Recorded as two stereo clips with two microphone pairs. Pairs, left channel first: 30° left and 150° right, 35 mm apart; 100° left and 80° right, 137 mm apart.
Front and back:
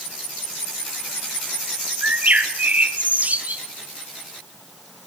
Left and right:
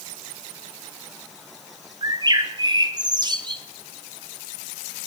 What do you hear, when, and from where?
2.0 s a bird: 125° right, 1.3 m